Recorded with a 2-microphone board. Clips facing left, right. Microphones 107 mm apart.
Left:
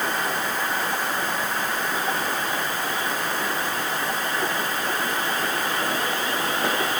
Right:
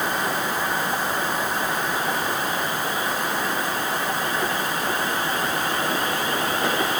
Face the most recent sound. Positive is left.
No sound to turn to.